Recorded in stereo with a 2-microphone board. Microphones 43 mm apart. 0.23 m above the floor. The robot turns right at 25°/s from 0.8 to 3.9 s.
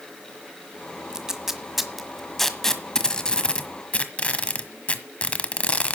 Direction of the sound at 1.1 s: 15° right (ahead or behind).